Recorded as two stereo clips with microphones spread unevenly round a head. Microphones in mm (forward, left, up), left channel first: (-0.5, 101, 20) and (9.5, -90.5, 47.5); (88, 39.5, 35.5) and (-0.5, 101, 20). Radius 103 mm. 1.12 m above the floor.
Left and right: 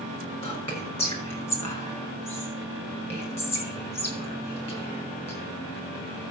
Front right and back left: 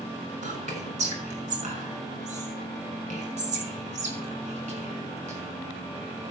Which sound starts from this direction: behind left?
Whispering, at 0.4 s.